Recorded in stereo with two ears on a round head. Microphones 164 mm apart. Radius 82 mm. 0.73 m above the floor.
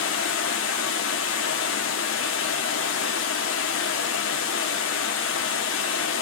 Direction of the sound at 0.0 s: 75° left (ahead or behind).